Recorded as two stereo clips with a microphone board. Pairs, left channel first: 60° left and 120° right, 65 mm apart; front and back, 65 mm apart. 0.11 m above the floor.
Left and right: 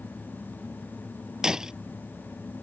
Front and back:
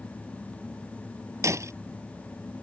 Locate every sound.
1.4 s breaking glass: 160° left